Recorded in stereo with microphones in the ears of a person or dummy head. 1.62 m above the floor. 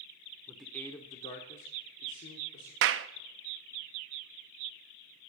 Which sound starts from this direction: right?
A clap, at 2.8 s.